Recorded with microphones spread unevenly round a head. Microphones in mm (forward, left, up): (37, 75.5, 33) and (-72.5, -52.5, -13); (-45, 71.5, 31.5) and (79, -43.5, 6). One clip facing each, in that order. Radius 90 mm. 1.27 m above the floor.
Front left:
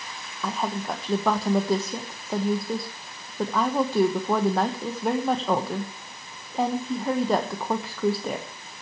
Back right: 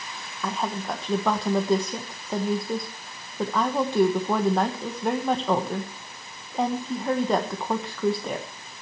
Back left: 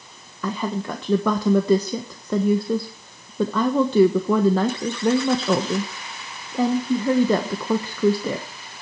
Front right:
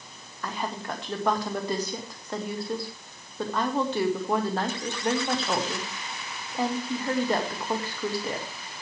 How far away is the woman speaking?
About 1.4 m.